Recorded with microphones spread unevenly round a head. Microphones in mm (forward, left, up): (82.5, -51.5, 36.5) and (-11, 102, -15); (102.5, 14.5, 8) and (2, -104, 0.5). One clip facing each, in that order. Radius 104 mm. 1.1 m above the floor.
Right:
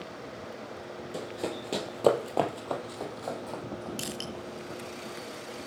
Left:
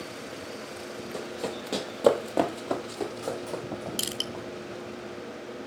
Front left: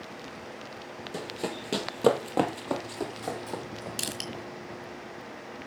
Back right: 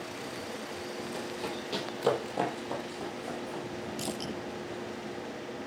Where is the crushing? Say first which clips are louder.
Left 1 dB, back right 2 dB; 75° left, 3.5 m.